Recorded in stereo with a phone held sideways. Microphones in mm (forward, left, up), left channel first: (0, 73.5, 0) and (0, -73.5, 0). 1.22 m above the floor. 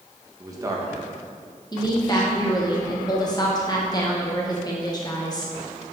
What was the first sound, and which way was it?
A man speaking, 20° right (ahead or behind).